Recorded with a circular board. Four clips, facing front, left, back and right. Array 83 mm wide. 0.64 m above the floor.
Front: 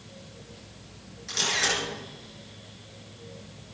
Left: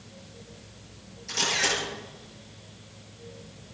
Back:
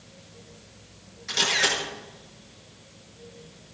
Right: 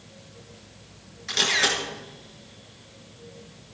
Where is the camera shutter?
110° right, 7 m.